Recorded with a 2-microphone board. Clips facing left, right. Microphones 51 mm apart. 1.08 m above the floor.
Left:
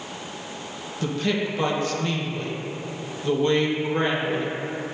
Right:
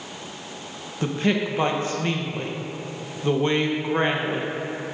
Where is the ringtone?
I don't hear a ringtone.